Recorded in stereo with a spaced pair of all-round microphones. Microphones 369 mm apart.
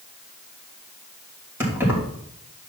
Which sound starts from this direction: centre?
Keys jangling, at 1.6 s.